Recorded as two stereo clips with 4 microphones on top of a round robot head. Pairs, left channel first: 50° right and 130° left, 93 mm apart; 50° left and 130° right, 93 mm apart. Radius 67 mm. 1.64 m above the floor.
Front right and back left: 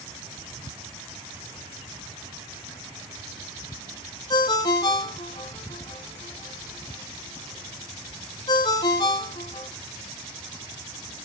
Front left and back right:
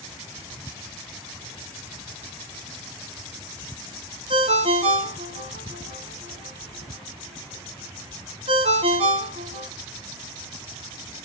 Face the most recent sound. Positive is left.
turn(degrees=-100)